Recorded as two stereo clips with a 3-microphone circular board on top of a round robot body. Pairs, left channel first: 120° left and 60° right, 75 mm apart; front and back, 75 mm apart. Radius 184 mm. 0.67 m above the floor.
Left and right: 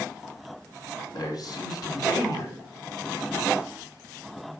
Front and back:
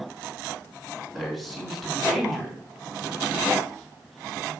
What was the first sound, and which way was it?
A man speaking, 90° left.